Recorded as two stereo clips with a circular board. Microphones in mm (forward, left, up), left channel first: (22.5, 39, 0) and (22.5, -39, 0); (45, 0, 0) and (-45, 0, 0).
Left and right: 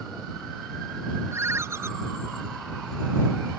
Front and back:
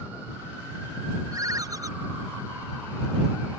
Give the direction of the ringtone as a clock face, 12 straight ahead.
5 o'clock.